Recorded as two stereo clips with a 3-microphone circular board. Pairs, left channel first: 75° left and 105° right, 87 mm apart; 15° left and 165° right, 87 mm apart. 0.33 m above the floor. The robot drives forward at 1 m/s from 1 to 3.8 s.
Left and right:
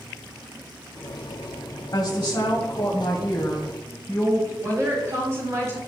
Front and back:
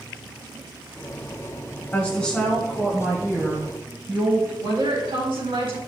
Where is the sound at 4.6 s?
155° right, 4 m.